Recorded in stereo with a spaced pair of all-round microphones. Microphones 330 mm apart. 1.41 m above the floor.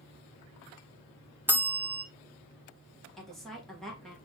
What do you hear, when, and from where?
1.5 s a bell: 5° right (ahead or behind), 0.9 m
3.2 s a woman speaking: centre (ahead or behind), 1.4 m